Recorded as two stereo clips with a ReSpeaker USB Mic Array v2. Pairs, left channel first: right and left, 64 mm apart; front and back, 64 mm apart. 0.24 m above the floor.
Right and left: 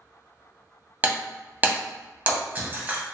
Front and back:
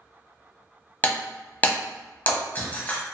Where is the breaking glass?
45° left, 0.8 m.